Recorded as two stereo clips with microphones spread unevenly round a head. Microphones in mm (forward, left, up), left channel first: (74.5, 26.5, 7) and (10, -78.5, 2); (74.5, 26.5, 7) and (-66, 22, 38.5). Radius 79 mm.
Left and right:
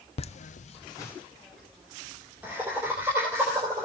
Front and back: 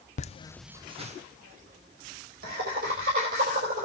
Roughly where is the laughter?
Ahead left.